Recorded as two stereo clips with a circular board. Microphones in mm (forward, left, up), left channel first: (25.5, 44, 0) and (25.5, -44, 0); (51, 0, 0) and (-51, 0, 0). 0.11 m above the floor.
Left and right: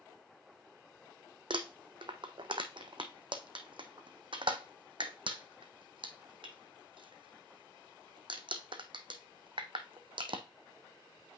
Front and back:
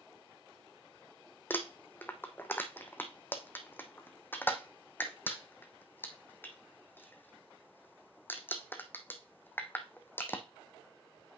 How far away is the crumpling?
About 0.9 m.